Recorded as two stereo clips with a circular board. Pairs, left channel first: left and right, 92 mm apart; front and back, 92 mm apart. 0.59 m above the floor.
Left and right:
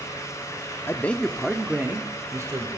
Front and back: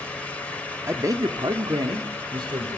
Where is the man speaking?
140° left, 1.3 m; by 2.7 s 145° right, 2.5 m.